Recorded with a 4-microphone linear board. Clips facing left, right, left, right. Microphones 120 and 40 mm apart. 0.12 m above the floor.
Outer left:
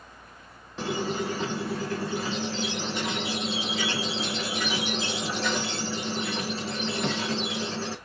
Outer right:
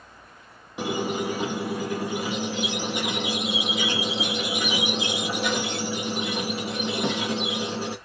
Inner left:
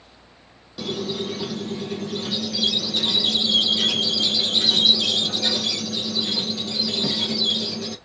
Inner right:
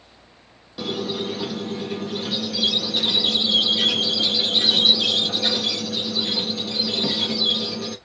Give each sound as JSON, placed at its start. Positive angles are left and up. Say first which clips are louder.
{"t": 0.8, "sound": "a squeak", "louder": "outer right 2 dB, inner right 1 dB", "side_deg": -15, "distance_m": 0.6}